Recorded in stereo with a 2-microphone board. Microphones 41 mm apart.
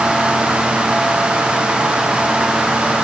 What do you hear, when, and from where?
Only background noise.